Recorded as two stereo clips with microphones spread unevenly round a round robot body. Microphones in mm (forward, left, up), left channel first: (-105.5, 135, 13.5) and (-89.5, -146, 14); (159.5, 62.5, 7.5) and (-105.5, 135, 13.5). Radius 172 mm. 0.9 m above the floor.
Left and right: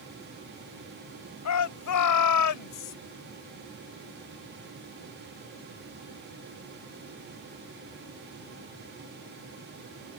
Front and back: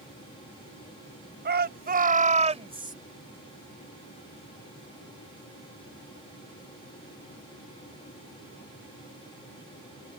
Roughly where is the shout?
Behind left.